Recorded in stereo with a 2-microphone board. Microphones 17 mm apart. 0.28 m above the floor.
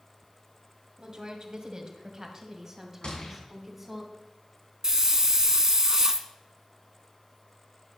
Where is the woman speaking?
45° right (ahead or behind), 1.8 m; by 4.0 s 15° right (ahead or behind), 2 m.